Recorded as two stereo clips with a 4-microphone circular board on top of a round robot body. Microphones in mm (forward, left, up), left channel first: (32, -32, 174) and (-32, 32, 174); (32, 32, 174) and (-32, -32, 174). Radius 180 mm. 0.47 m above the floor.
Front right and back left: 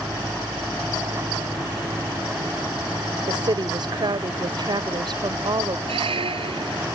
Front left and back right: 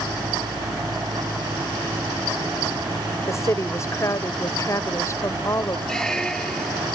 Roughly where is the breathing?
I don't hear breathing.